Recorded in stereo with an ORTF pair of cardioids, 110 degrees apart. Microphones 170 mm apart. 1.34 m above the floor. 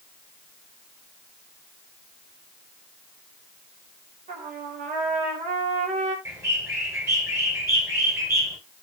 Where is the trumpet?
50° right, 3.5 m.